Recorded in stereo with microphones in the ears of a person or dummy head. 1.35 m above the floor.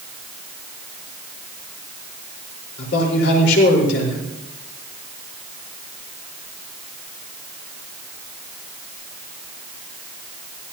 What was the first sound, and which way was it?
A man speaking, 70° left (ahead or behind).